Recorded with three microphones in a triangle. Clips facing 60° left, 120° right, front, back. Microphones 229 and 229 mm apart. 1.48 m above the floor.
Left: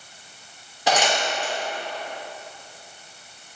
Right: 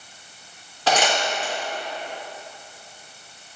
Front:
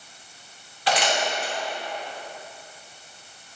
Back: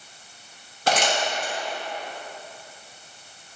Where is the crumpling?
135° left, 1.6 m.